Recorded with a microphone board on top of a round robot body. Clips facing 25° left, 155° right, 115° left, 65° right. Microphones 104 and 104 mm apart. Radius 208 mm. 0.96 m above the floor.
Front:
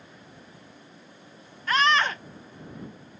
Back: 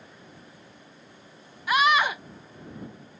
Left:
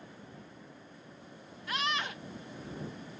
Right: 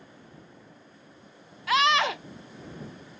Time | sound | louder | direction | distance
1.7 | a scream | back 1 dB, right 12 dB | 75° right | ?